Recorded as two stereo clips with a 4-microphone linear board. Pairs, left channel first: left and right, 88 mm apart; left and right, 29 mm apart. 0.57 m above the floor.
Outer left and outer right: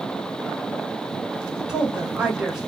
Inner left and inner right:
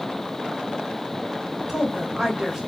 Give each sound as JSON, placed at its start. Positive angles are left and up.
{"t": 1.7, "sound": "a woman speaking", "side_deg": -10, "distance_m": 1.2}